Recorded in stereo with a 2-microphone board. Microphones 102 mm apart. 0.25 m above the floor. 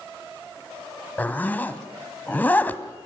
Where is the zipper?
15° left (ahead or behind), 1.3 m.